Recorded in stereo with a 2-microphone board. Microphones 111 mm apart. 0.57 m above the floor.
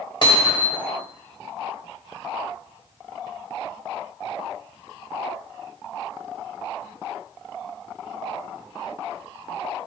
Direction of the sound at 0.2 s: 50° left (ahead or behind).